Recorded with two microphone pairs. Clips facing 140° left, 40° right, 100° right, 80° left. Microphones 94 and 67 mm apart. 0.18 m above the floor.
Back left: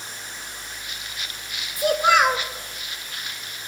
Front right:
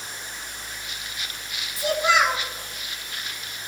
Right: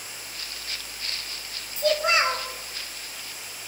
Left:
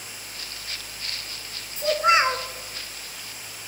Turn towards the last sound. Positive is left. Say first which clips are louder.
# back left 3 dB, left 3 dB
turn(degrees=130)